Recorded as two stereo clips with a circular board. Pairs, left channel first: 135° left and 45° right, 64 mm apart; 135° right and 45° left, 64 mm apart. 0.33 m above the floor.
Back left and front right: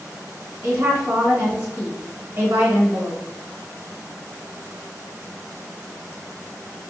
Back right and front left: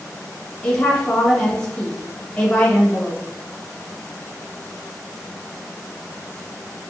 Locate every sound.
0.6 s a woman speaking: 65° right, 1.1 m